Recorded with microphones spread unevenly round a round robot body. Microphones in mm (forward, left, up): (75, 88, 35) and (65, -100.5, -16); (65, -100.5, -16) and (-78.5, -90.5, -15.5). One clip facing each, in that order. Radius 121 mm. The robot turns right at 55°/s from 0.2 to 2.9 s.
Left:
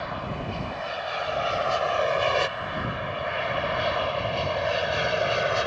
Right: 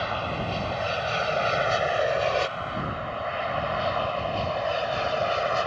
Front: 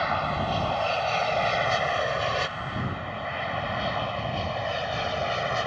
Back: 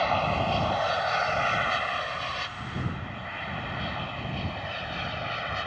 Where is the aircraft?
120° right; by 5.7 s 35° left.